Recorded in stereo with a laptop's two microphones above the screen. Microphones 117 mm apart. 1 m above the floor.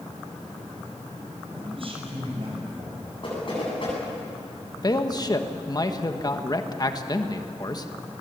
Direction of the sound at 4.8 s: 35° left (ahead or behind).